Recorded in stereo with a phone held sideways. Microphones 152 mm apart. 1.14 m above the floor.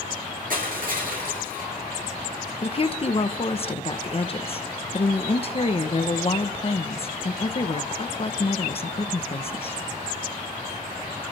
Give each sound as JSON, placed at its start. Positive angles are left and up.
{"t": 0.5, "sound": "crushing", "side_deg": -65, "distance_m": 4.5}
{"t": 2.6, "sound": "a woman speaking", "side_deg": 40, "distance_m": 1.0}